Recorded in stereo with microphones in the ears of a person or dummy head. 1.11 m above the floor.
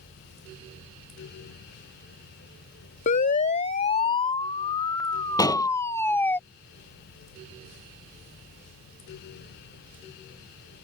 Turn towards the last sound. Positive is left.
turn(degrees=15)  # may be behind; listen again after turning